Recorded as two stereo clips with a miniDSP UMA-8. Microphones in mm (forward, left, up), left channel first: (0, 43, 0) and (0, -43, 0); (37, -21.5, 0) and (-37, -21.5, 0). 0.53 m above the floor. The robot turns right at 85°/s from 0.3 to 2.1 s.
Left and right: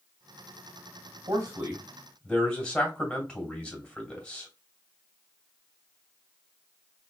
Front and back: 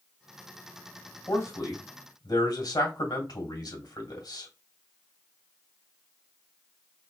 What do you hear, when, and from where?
1.3 s a man speaking: 60° right, 2.5 m; by 4.5 s 10° left, 2.5 m